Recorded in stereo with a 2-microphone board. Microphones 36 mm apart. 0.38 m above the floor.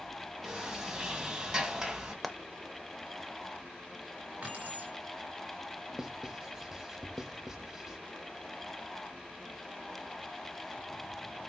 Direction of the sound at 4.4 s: 40° right (ahead or behind).